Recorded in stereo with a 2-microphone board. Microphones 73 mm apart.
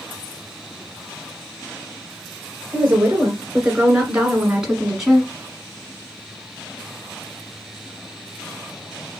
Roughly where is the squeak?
I don't hear a squeak.